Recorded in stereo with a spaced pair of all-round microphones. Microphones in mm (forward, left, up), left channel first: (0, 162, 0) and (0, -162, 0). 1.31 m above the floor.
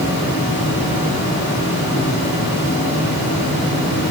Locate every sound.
0.0 s a fan: 75° left (ahead or behind), 6 m